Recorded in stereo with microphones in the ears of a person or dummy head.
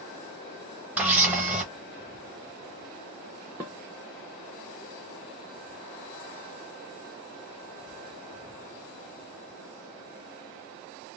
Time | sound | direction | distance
1.0 | a camera shutter | 10° right (ahead or behind) | 0.8 m
3.6 | dishes clattering | 15° right (ahead or behind) | 0.9 m